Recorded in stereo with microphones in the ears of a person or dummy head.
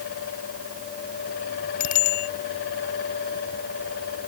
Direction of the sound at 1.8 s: 50° left (ahead or behind).